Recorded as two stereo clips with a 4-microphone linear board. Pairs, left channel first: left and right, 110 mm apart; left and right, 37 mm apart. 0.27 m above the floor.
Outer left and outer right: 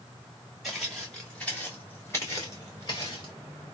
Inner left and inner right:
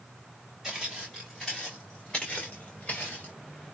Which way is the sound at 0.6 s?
5° right (ahead or behind).